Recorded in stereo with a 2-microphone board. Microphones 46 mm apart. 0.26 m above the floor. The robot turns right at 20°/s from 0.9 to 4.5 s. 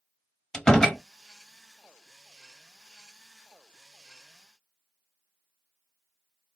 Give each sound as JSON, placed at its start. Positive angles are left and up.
{"t": 0.5, "sound": "a door slam", "side_deg": 15, "distance_m": 0.7}